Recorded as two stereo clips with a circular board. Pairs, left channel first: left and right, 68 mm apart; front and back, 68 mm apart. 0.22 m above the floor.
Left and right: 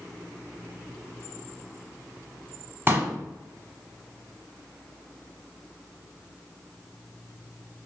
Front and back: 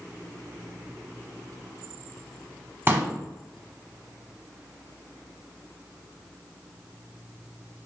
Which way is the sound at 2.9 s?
135° right.